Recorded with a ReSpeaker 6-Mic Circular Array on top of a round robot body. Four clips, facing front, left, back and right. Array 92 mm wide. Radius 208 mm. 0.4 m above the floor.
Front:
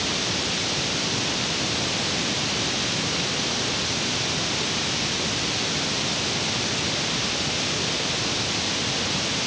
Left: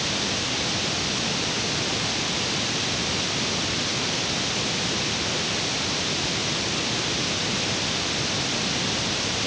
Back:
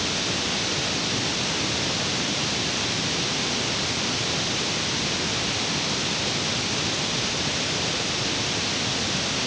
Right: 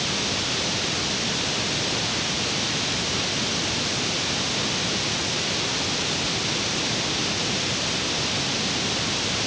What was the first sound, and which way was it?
Only background noise.